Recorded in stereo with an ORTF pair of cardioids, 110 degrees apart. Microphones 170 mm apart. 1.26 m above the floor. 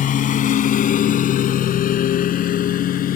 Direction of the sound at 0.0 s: 55° left.